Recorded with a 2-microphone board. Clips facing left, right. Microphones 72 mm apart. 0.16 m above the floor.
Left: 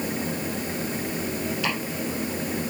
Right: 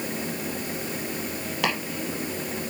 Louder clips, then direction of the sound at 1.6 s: Right 4 dB; 70° right (ahead or behind).